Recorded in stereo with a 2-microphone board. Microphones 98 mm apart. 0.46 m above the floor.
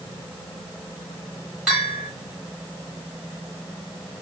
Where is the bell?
Centre (ahead or behind), 1.8 m.